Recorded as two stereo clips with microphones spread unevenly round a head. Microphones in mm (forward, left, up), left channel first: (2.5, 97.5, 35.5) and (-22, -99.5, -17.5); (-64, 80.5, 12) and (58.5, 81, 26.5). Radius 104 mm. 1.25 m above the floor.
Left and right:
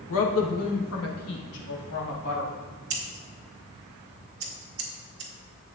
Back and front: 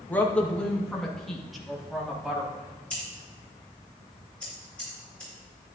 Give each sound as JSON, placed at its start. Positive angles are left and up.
{"t": 0.1, "sound": "a woman speaking", "azimuth_deg": 105, "distance_m": 1.4}
{"t": 2.9, "sound": "scissors", "azimuth_deg": -95, "distance_m": 1.5}